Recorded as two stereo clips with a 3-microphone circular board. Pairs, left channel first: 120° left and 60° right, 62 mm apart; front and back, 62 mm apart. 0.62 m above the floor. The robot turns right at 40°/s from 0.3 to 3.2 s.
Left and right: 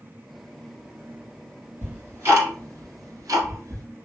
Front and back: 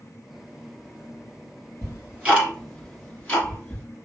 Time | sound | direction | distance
1.8 | ticking | 125° right | 1.6 m